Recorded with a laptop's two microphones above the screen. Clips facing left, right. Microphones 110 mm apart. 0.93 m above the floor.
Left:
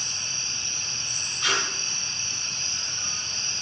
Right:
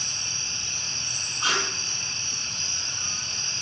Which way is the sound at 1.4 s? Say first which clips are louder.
Right 1 dB; 35° right (ahead or behind).